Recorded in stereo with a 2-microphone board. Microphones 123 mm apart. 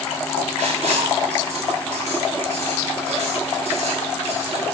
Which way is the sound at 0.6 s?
80° right.